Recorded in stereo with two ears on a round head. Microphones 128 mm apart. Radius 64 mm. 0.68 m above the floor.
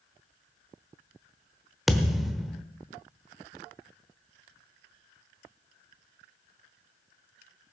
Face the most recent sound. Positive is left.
turn(degrees=0)  # may be behind; listen again after turning